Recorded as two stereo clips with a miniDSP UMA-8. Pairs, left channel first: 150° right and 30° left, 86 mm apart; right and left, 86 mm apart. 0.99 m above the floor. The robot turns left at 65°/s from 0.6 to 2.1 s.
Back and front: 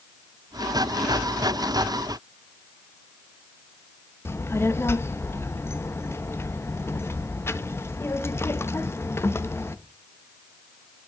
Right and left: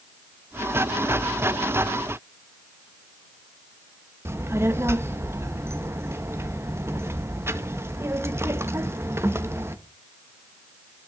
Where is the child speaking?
150° left, 0.6 m.